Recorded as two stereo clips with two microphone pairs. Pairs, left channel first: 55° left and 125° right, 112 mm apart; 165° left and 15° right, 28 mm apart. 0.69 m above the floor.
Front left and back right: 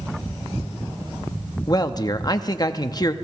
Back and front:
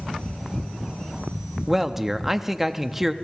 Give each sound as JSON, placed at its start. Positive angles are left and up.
{"t": 1.7, "sound": "a man speaking", "azimuth_deg": 55, "distance_m": 0.8}